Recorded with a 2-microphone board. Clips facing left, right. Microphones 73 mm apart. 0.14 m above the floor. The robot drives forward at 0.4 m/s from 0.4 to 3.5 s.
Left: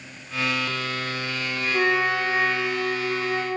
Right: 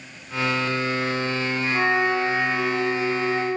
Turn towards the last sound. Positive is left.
turn(degrees=-10)  # may be behind; listen again after turning